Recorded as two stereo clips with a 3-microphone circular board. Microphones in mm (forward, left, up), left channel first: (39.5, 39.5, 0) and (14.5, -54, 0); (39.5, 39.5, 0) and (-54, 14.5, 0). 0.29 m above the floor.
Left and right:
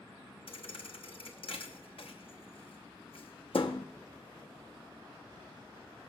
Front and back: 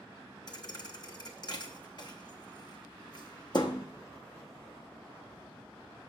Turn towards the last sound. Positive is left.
turn(degrees=55)